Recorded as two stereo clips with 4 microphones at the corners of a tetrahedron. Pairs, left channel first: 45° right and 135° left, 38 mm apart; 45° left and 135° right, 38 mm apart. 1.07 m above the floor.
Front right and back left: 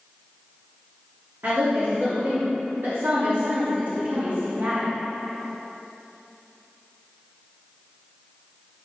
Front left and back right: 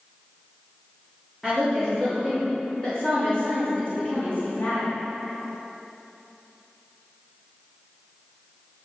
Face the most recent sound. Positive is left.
turn(degrees=85)